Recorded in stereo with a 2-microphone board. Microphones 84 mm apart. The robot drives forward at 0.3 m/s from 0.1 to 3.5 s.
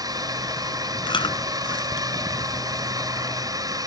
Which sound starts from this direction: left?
Chewing, at 1.1 s.